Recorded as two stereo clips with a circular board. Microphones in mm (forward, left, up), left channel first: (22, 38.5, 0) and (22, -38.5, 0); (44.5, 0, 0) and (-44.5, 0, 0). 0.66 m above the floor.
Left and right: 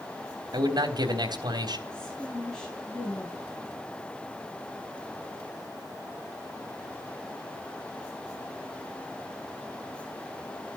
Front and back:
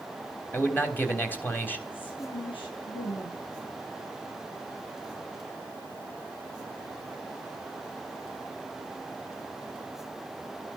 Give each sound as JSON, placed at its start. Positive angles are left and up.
{"t": 0.5, "sound": "a man speaking", "azimuth_deg": -65, "distance_m": 3.5}
{"t": 1.9, "sound": "a woman speaking", "azimuth_deg": 5, "distance_m": 7.5}